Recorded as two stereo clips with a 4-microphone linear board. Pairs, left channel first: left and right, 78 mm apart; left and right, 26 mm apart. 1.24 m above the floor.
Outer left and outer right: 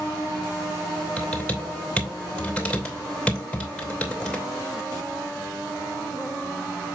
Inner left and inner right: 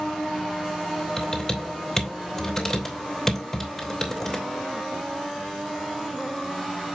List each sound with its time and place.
1.2 s typing on a keyboard: 15° left (ahead or behind), 2.5 m